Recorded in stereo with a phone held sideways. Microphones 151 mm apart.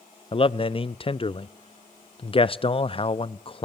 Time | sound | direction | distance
0.3 | a man speaking | 35° left (ahead or behind) | 0.5 m